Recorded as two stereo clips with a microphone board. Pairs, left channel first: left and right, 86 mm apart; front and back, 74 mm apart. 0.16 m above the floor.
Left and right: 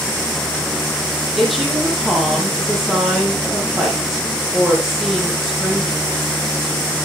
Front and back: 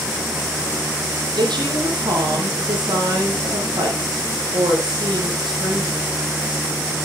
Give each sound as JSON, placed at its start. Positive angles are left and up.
{"t": 1.4, "sound": "a woman speaking", "azimuth_deg": 180, "distance_m": 5.0}